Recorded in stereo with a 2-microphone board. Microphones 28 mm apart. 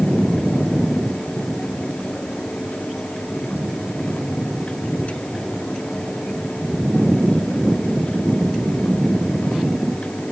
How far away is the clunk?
No clunk in this recording.